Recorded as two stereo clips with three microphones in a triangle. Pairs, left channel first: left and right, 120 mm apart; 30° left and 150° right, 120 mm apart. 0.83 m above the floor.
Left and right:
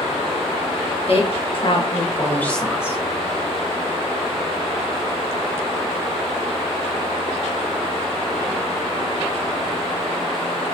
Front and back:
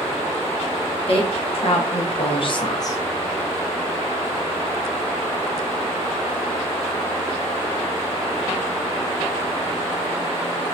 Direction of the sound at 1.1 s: 60° left.